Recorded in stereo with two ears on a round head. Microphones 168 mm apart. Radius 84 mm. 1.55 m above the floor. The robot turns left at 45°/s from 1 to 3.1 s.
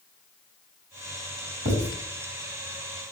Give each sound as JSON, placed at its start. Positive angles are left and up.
{"t": 1.6, "sound": "writing", "side_deg": -65, "distance_m": 5.5}